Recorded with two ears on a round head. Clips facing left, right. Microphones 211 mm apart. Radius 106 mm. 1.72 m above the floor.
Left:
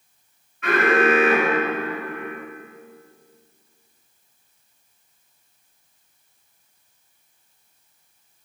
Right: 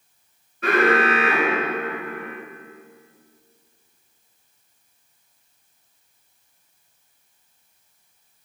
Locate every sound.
0.6 s an alarm: 35° right (ahead or behind), 4.5 m